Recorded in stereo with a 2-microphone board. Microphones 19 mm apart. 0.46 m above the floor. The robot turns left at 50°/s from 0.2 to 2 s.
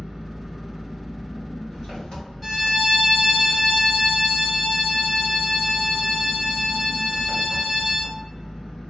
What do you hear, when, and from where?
0.0 s an engine running: 155° right, 1.7 m; by 8.9 s 115° left, 1.7 m
2.4 s a violin: 10° left (ahead or behind), 1.4 m